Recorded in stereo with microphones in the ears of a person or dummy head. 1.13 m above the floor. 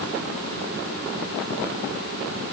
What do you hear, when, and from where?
Only background noise.